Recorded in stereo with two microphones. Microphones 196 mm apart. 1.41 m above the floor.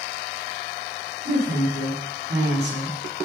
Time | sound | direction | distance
1.2 | a woman speaking | 60° right (ahead or behind) | 5.5 m